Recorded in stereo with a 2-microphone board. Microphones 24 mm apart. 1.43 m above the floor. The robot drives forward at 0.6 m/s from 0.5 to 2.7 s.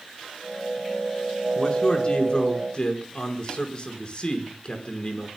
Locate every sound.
1.6 s a man speaking: 40° left (ahead or behind), 4.5 m; by 5.3 s 35° left (ahead or behind), 5 m